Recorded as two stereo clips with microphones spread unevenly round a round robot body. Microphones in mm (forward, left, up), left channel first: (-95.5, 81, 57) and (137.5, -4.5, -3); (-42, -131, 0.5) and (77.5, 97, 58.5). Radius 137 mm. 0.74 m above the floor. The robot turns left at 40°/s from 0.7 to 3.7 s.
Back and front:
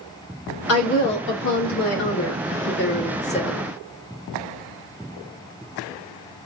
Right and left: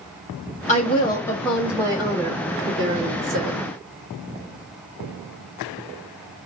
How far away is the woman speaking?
About 1.4 m.